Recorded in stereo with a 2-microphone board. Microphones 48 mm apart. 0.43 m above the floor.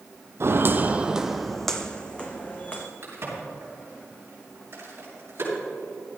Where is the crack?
50° right (ahead or behind), 5 m.